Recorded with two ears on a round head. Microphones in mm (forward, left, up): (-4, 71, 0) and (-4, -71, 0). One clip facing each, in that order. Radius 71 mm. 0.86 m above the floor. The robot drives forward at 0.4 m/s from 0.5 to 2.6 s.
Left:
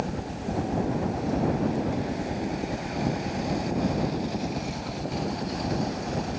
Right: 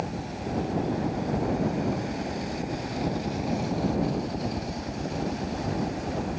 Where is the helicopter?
55° left (ahead or behind); by 6.4 s 40° right (ahead or behind).